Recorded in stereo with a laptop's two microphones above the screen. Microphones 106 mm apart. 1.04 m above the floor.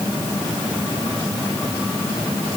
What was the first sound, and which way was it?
Only background noise.